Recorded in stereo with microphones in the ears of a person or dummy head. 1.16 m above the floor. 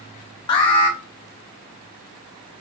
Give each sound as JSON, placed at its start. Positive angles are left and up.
{"t": 0.5, "sound": "an alarm", "side_deg": 20, "distance_m": 0.9}